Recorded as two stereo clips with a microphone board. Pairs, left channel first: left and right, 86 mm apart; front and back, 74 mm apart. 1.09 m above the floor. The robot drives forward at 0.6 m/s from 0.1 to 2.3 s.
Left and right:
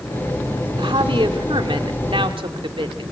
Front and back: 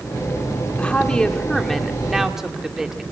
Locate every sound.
0.8 s a woman speaking: 75° right, 2.5 m; by 3.0 s 95° right, 2.5 m